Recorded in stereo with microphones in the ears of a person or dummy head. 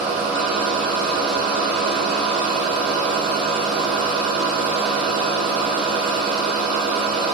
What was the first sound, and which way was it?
A machine running, 5° right (ahead or behind).